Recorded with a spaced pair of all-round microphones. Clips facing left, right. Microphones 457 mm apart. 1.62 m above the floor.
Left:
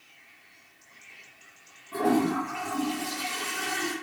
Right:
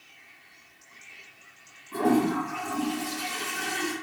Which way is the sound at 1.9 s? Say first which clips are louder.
Right 1 dB; 5° right (ahead or behind).